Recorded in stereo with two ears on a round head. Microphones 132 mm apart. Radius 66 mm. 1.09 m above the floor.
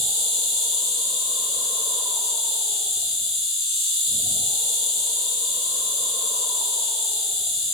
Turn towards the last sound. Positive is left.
turn(degrees=0)  # may be behind; listen again after turning